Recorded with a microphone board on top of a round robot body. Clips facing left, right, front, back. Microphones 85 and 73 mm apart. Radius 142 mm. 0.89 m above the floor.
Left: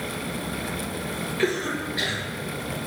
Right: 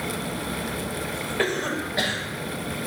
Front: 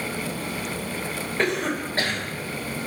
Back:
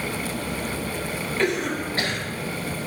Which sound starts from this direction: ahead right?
A cough, at 1.4 s.